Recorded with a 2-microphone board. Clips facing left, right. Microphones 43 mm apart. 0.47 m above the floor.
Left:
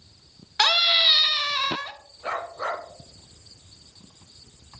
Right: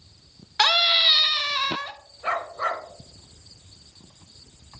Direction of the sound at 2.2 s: 30° right (ahead or behind).